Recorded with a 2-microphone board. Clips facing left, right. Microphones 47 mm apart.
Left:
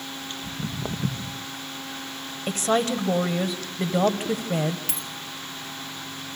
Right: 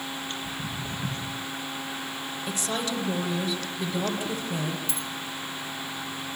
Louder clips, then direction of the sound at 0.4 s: Left 2 dB; 80° left.